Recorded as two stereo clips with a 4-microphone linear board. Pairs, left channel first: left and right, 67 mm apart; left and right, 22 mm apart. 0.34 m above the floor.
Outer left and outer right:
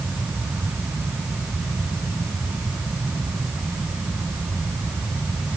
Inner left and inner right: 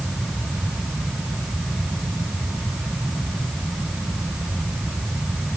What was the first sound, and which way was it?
Only background noise.